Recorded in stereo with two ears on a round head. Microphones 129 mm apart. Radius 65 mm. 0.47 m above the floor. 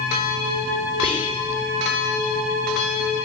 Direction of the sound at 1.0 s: 40° left (ahead or behind).